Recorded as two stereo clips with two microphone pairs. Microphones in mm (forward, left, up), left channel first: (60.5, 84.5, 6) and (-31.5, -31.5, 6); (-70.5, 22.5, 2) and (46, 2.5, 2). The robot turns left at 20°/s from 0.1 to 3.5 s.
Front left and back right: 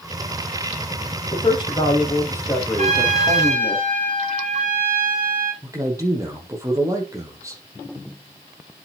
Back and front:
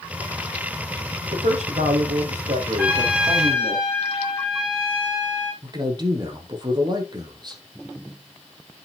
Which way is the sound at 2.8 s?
85° right.